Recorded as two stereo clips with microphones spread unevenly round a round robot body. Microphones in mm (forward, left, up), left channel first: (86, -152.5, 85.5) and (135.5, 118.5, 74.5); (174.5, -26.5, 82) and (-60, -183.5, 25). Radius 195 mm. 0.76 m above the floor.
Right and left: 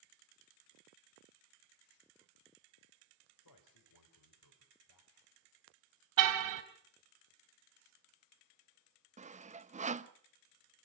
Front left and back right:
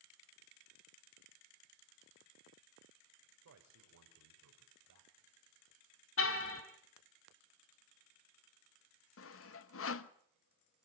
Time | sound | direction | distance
3.4 | a man speaking | 120° right | 4 m
6.2 | a car horn | 90° left | 2.5 m
9.2 | sawing | 40° left | 1.1 m